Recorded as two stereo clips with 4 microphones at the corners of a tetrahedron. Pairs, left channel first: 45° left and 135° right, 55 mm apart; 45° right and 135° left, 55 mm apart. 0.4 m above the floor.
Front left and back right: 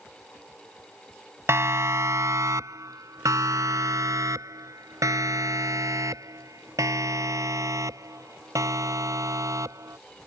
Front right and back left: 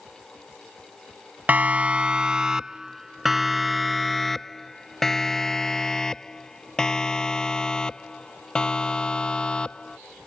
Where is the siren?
165° right; by 10.0 s 120° right.